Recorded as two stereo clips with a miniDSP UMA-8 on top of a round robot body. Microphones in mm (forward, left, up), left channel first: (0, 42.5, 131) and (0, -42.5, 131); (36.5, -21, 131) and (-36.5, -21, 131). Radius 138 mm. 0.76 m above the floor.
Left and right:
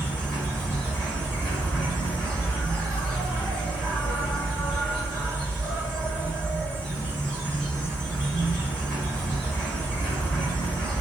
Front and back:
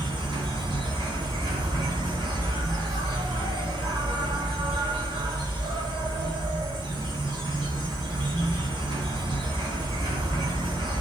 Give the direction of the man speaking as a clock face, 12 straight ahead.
No man speaking in this recording.